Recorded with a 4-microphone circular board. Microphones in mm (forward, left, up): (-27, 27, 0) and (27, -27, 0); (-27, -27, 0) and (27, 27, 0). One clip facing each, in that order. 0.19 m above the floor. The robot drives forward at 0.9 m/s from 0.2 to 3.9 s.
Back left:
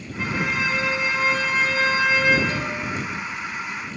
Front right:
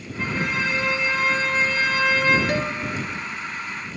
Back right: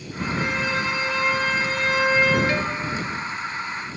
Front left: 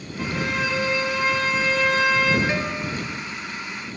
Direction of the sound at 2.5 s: 25° right.